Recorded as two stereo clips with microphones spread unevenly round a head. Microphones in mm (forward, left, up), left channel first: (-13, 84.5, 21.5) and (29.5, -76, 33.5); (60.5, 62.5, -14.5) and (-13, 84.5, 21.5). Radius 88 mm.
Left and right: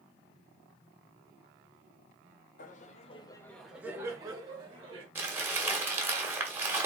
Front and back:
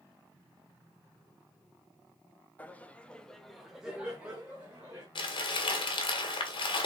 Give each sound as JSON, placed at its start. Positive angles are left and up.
{"t": 2.6, "sound": "laughter", "azimuth_deg": 75, "distance_m": 0.7}
{"t": 5.2, "sound": "crumpling", "azimuth_deg": 0, "distance_m": 1.3}